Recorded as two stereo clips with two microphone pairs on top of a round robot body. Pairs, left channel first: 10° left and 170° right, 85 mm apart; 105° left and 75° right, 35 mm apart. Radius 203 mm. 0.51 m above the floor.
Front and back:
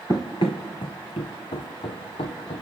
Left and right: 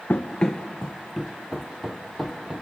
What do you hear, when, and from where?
0.1 s running footsteps: 55° left, 0.5 m; by 2.6 s 5° left, 2 m